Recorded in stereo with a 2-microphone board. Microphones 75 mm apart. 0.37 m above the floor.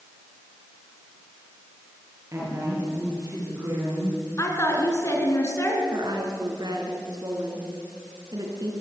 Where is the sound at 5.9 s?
65° right (ahead or behind), 5 m.